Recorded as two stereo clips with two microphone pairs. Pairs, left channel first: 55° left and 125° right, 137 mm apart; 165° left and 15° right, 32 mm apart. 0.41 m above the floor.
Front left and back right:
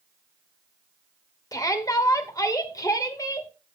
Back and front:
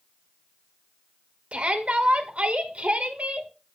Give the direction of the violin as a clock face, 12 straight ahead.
No violin in this recording.